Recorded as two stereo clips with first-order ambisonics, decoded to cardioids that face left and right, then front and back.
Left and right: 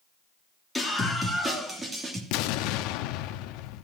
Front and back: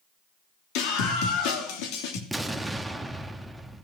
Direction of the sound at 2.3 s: 90° left.